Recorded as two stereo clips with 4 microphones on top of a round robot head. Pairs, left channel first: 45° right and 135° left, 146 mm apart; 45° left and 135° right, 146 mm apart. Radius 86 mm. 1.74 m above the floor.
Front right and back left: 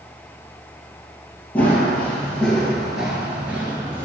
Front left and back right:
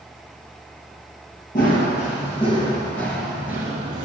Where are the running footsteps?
30° left, 2.5 m; by 4.0 s 160° right, 1.9 m.